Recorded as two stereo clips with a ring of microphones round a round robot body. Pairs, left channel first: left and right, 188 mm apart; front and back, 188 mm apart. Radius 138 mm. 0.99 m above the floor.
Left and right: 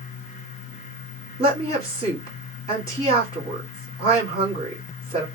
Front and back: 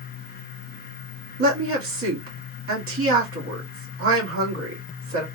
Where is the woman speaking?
160° right, 2.0 m.